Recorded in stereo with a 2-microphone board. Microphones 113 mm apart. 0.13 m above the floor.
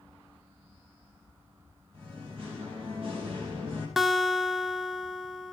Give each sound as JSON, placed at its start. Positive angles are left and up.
{"t": 1.9, "sound": "singing", "side_deg": -55, "distance_m": 4.0}
{"t": 4.0, "sound": "a guitar", "side_deg": 0, "distance_m": 0.6}